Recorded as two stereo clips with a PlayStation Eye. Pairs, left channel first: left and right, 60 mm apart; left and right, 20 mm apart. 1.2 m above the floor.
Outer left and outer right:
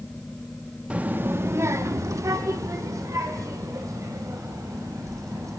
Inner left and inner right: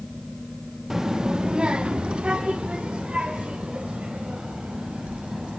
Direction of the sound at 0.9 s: 20° right (ahead or behind).